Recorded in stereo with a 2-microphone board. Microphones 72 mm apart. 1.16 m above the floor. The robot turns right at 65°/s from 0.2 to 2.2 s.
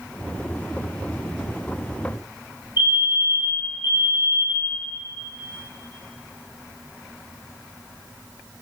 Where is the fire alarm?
75° left (ahead or behind), 6.5 m.